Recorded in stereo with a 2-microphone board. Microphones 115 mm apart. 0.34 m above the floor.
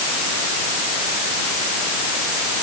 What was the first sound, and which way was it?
Only background noise.